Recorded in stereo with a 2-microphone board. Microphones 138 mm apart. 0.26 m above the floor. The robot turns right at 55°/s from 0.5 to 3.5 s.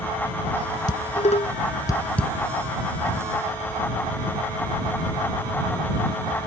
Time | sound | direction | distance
0.9 | dishes clattering | 70° left (ahead or behind) | ?